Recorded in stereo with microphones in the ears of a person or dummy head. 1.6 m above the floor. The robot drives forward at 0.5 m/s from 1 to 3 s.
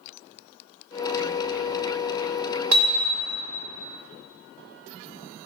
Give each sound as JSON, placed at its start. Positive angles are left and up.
{"t": 2.7, "sound": "hammering", "side_deg": -70, "distance_m": 2.0}